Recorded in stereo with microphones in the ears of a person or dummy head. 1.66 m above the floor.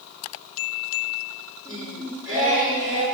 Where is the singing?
15° right (ahead or behind), 1.3 m.